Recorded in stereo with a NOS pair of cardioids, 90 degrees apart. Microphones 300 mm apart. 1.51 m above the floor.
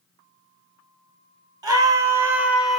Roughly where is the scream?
Ahead.